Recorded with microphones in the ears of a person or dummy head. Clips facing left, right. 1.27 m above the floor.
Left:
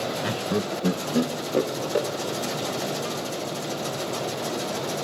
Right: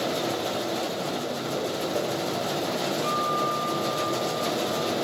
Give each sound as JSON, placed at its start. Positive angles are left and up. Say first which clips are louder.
{"t": 0.2, "sound": "laughter", "louder": "left 1 dB", "side_deg": 65, "distance_m": 0.7}
{"t": 3.0, "sound": "a guitar", "louder": "right 2 dB", "side_deg": 0, "distance_m": 3.0}